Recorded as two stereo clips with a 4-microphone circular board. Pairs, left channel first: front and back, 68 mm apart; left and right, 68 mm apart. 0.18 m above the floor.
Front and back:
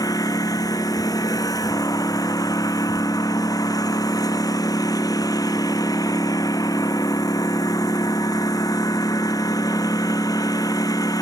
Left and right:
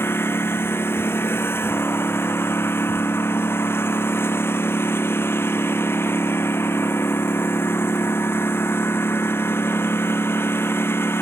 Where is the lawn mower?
35° left.